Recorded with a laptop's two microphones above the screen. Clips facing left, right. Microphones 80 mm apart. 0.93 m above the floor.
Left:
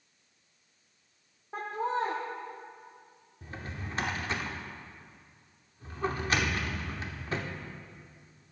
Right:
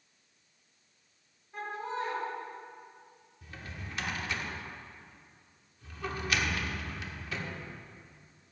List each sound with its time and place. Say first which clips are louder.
1.5 s laughter: left 5 dB; 75° left (ahead or behind), 1.8 m
3.4 s a drawer: left 4 dB; 35° left (ahead or behind), 0.9 m